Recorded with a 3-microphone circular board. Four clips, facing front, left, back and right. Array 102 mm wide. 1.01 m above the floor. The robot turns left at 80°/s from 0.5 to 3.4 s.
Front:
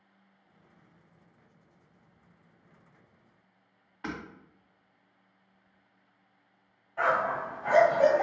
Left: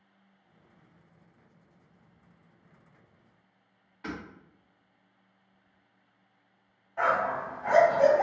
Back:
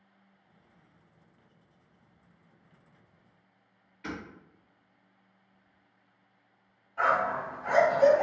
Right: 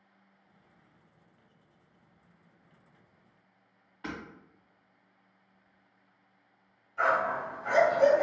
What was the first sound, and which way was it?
Hammering, 10° right.